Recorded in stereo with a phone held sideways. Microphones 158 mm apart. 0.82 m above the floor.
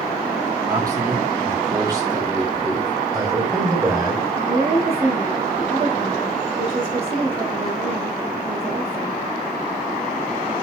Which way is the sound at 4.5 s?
45° right (ahead or behind).